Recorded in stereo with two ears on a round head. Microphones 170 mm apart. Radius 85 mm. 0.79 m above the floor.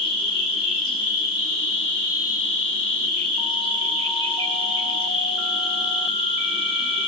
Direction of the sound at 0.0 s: 30° left (ahead or behind).